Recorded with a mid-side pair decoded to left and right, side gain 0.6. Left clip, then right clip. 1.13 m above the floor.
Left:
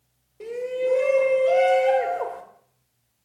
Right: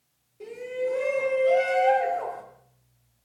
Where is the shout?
35° left, 3 m.